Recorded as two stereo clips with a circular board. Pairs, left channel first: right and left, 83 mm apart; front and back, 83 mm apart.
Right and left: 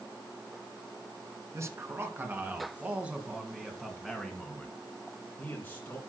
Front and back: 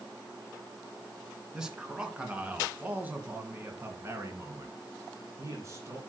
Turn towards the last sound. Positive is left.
turn(degrees=-150)